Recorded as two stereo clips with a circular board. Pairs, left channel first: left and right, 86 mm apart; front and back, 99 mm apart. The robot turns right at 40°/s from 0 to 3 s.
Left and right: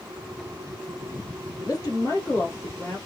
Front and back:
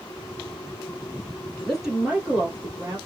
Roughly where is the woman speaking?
Left.